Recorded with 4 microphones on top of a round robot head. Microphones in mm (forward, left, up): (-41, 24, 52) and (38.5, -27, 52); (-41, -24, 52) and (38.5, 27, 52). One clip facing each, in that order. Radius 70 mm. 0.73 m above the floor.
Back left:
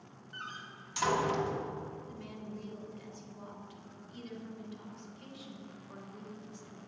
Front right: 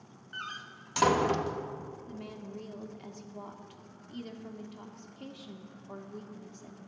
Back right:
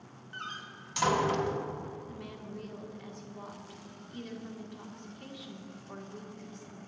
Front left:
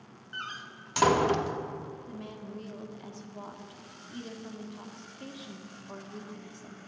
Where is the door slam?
5° right, 0.9 m.